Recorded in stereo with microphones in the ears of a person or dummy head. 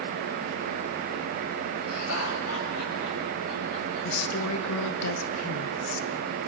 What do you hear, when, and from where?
1.9 s laughter: 85° left, 7.5 m; by 5.0 s 80° left, 8 m
4.0 s a woman speaking: 90° left, 1.8 m